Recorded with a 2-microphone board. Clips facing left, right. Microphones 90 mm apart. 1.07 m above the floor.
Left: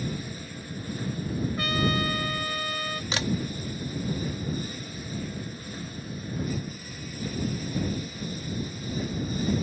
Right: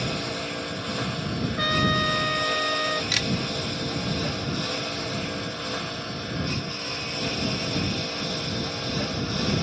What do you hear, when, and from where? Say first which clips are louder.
0.0 s a lawn mower: right 5 dB; 90° right; by 9.6 s 80° right
1.6 s a trumpet: right 4 dB; 30° right (ahead or behind)
3.1 s a camera shutter: even; 35° left (ahead or behind)